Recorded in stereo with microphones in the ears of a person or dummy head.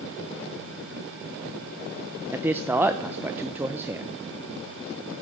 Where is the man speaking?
10° right (ahead or behind), 0.7 m.